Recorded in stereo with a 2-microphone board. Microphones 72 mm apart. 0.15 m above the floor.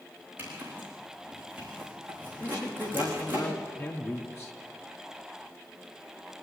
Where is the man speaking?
35° left (ahead or behind), 2 m.